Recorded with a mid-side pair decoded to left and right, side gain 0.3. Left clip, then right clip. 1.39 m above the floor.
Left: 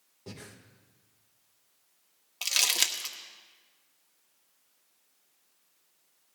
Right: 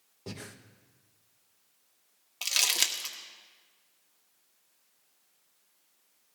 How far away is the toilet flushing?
No toilet flushing in this recording.